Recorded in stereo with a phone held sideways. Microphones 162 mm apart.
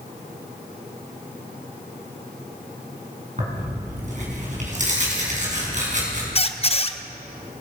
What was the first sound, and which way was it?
Tearing paper, 50° right (ahead or behind).